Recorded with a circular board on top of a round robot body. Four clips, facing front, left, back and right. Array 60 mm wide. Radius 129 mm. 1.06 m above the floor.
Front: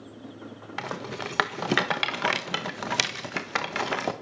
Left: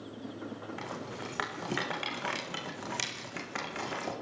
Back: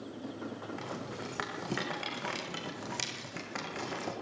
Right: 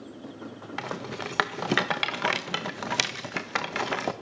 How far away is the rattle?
About 1.6 m.